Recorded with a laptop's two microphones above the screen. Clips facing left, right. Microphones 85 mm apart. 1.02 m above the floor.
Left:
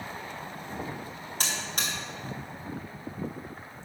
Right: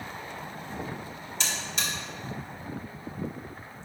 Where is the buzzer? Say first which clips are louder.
Even; 45° left (ahead or behind), 1.2 m.